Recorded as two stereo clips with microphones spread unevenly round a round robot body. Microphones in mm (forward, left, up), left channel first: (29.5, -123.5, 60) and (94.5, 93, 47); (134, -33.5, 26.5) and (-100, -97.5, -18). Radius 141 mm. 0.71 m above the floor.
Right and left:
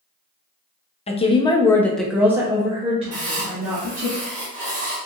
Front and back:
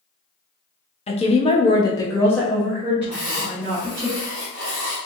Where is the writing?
115° left, 1.7 m.